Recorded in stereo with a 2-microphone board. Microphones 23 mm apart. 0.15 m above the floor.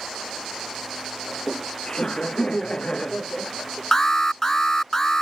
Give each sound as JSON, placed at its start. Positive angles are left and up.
{"t": 1.3, "sound": "laughter", "side_deg": 40}
{"t": 3.9, "sound": "an alarm", "side_deg": 25}